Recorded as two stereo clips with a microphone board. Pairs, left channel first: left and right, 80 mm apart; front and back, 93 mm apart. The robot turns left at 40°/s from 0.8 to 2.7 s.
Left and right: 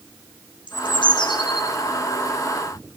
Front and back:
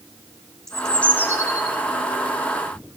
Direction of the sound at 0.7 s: 85° left.